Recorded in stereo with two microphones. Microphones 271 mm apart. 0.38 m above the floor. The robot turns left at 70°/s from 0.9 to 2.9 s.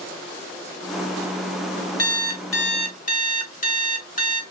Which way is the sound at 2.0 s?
100° left.